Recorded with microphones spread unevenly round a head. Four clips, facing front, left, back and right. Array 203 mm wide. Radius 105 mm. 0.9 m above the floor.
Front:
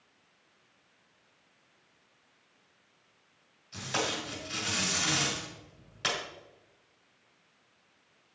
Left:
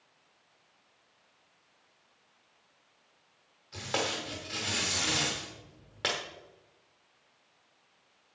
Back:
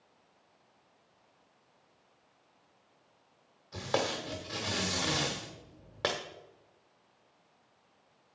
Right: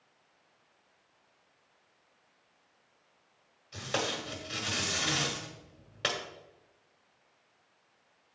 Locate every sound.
3.7 s tape being pulled: 175° left, 1.3 m